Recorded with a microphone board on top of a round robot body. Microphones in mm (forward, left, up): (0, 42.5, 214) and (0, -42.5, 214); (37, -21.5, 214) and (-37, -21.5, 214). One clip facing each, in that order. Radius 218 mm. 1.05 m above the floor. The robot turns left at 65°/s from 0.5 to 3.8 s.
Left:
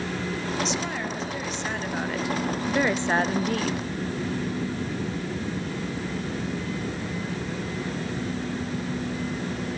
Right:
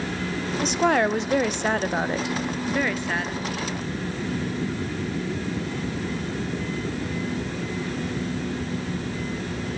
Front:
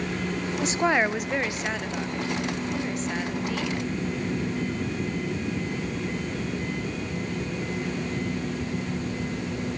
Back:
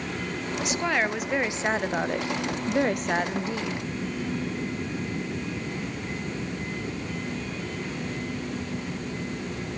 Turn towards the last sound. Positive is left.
turn(degrees=100)